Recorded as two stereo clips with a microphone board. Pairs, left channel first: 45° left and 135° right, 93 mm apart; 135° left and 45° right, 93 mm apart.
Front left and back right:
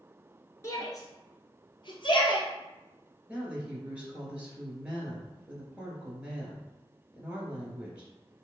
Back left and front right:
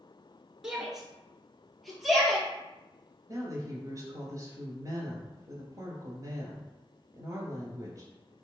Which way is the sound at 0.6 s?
35° left.